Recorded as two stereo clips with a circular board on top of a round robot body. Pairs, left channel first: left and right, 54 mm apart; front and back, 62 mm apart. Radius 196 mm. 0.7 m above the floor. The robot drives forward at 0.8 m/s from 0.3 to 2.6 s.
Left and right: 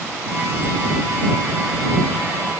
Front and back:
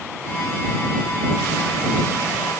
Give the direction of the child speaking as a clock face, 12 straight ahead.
I don't hear a child speaking.